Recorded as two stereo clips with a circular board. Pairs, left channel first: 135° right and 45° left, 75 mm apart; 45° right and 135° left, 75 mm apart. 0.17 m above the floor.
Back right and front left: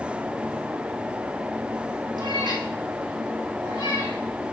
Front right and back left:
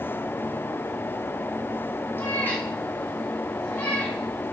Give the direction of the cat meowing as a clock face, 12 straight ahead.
11 o'clock.